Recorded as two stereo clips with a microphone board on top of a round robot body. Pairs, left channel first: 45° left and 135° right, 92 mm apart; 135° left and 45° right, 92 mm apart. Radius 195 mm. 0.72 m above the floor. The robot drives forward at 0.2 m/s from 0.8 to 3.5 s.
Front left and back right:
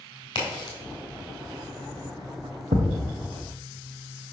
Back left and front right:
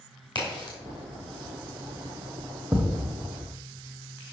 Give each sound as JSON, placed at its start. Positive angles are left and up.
{"t": 0.3, "sound": "a crack", "azimuth_deg": 90, "distance_m": 2.5}
{"t": 2.7, "sound": "a thud", "azimuth_deg": -115, "distance_m": 0.5}